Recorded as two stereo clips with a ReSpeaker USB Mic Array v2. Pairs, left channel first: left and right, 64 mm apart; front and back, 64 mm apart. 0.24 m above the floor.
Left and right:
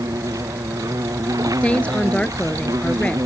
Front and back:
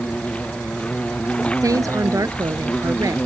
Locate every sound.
0.0 s an insect: 70° right
1.6 s a woman speaking: 160° left